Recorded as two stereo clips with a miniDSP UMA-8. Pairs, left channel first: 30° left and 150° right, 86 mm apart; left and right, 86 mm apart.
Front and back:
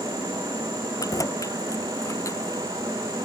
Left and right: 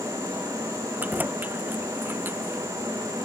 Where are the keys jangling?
20° right; by 2.6 s 25° right.